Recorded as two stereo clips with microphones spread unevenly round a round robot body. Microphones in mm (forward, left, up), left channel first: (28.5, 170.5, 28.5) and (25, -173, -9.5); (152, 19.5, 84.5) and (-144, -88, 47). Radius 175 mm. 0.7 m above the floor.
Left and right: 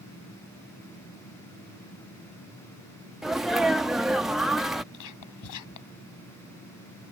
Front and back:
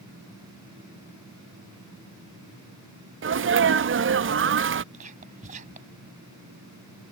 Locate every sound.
3.2 s a sneeze: 170° right
4.9 s whispering: 130° left